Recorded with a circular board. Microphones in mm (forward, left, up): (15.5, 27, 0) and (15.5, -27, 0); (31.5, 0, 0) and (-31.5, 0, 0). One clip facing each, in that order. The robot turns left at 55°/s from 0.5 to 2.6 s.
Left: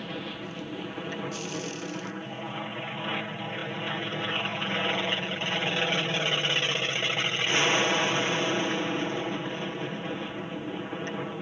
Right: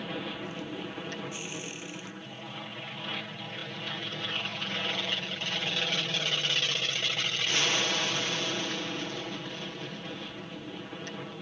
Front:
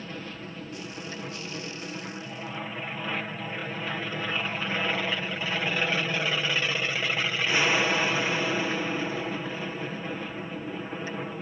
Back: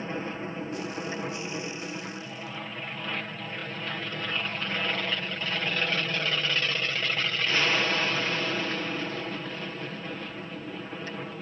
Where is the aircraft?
175° right; by 11.4 s 70° left.